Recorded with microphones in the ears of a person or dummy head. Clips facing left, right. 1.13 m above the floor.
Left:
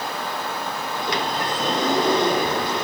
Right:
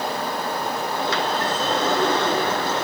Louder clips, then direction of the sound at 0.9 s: Even; 25° left (ahead or behind).